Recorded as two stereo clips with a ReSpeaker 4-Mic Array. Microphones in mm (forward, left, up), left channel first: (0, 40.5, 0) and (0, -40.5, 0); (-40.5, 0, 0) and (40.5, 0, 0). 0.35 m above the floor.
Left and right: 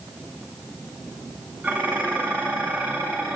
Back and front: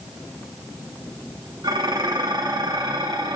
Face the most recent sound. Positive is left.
turn(degrees=-25)